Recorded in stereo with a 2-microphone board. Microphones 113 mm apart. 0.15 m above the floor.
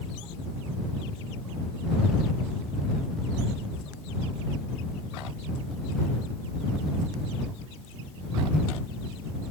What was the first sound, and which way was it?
Only background noise.